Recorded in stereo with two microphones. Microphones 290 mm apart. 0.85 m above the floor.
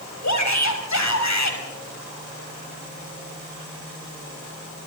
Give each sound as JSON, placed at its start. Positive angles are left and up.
{"t": 0.2, "sound": "a shout", "side_deg": 70, "distance_m": 6.0}